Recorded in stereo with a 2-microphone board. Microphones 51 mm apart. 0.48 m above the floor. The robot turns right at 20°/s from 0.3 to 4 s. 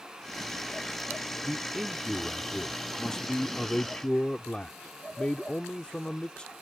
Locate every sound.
1.4 s a man speaking: 5° right (ahead or behind); by 6.5 s 20° left (ahead or behind)